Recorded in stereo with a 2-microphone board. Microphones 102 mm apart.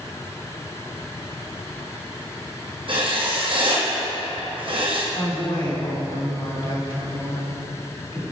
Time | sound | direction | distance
2.9 | writing | 55° right (ahead or behind) | 2 m
5.1 | a woman speaking | 55° left (ahead or behind) | 2 m